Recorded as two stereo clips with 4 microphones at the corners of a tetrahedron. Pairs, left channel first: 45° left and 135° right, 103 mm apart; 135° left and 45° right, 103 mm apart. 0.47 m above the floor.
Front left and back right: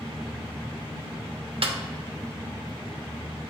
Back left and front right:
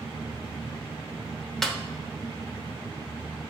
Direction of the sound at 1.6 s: 140° right.